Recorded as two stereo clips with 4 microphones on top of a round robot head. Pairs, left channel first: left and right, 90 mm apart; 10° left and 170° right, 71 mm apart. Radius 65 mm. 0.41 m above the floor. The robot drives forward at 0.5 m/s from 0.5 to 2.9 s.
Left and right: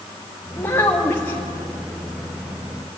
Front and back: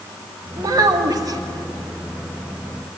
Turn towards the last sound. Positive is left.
turn(degrees=170)